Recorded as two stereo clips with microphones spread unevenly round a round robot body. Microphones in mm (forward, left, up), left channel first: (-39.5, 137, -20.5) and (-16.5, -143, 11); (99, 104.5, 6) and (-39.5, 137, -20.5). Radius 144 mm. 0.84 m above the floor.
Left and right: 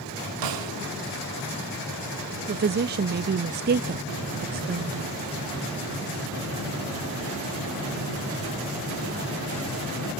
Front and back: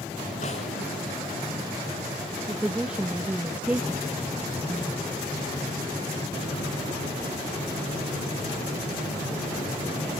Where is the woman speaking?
130° right, 0.5 m.